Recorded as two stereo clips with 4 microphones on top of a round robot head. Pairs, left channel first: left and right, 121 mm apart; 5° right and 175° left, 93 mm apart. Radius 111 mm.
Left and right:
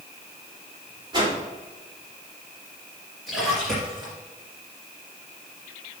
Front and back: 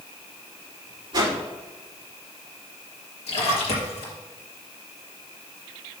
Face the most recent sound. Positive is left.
turn(degrees=0)